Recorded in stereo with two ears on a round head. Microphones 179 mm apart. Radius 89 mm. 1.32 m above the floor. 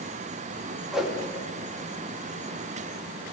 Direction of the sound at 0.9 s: Centre (ahead or behind).